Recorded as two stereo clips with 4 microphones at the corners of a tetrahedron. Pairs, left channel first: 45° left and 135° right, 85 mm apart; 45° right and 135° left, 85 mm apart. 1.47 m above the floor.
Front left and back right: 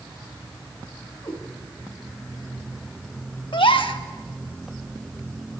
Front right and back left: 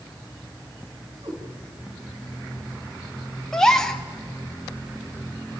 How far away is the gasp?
About 1.3 m.